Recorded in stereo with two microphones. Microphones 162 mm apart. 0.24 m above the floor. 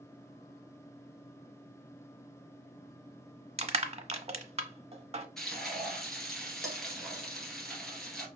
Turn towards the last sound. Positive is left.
turn(degrees=0)  # may be behind; listen again after turning